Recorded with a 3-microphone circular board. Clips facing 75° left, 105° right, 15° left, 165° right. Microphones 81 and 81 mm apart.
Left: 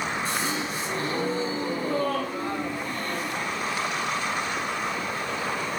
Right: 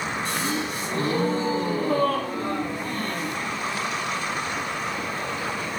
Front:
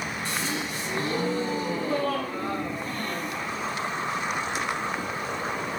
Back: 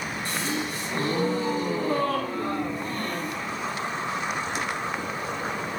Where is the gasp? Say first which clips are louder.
Right 2 dB, back 3 dB; 125° right, 1.4 m.